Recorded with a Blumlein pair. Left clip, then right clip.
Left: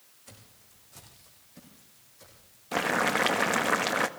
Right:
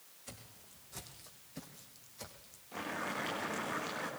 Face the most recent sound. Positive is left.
turn(degrees=50)